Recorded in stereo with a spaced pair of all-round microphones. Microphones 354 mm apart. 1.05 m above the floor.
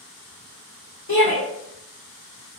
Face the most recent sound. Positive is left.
turn(degrees=65)  # may be behind; listen again after turning